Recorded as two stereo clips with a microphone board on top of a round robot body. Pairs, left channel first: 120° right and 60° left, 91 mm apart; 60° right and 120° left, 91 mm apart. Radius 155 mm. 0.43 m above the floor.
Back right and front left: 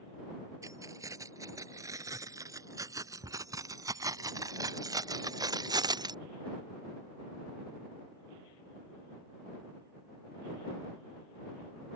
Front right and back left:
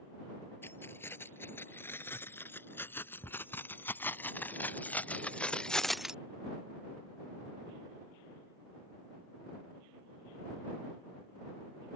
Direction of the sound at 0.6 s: 5° left.